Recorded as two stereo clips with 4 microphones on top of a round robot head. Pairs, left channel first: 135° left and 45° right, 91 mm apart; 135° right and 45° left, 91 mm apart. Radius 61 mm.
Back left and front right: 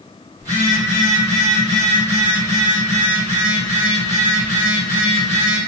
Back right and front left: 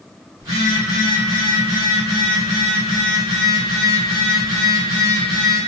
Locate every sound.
0.4 s a phone buzzing: straight ahead, 1.5 m